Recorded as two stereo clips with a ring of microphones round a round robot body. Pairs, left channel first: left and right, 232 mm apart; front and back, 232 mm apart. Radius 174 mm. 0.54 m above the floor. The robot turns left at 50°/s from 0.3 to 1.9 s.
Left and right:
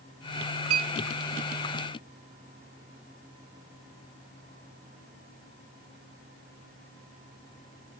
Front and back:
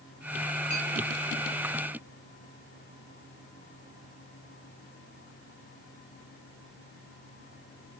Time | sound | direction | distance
0.7 | a clink | 65° right | 1.5 m